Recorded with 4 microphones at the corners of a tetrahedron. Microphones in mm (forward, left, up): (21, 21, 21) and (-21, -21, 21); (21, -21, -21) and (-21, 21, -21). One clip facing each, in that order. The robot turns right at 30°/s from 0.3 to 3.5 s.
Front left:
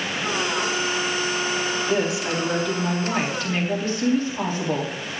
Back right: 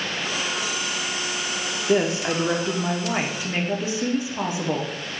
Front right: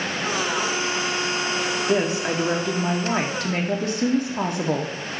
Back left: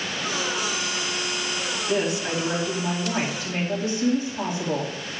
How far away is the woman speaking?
About 0.9 m.